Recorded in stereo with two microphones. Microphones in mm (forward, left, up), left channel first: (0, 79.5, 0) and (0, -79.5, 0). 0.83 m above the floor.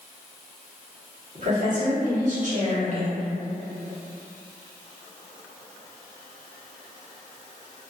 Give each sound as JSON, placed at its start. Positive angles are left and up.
{"t": 1.4, "sound": "a woman speaking", "side_deg": -55, "distance_m": 1.0}